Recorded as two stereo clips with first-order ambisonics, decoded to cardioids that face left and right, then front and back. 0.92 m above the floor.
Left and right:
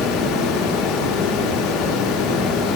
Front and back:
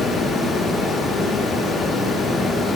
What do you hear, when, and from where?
0.0 s running water: 75° left, 0.8 m